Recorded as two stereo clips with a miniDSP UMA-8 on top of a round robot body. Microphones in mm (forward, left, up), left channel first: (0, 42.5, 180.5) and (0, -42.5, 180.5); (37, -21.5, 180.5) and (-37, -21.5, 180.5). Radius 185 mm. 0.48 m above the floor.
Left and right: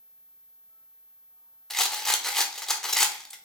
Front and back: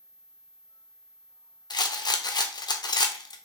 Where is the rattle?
5° left, 0.6 m.